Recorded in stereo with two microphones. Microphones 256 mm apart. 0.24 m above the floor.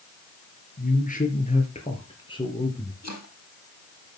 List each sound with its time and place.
0.8 s a man speaking: 35° left (ahead or behind), 4 m; by 2.9 s 15° left (ahead or behind), 4 m
3.0 s chopping: 75° left (ahead or behind), 4.5 m